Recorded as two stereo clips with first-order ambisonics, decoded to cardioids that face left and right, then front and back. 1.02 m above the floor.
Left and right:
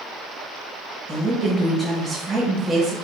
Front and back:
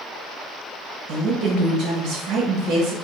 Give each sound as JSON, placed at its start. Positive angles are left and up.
{"t": 1.1, "sound": "a woman speaking", "azimuth_deg": -155, "distance_m": 0.8}